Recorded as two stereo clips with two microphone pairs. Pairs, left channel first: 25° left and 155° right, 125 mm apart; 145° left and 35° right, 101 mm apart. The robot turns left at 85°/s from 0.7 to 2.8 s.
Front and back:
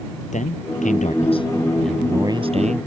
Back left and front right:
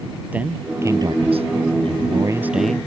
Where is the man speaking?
40° left; by 2.9 s 140° right.